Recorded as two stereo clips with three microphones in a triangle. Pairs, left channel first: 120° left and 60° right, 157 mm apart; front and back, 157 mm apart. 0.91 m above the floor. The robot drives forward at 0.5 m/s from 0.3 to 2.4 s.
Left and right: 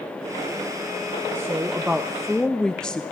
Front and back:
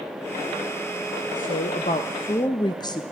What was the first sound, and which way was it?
A woman speaking, 15° left.